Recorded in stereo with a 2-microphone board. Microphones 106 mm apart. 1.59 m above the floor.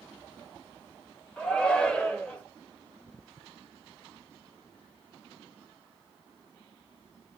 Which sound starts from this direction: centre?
A shout, at 1.4 s.